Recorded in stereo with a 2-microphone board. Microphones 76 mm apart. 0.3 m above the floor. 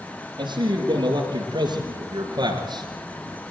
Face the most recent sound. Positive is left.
turn(degrees=-75)  # may be behind; listen again after turning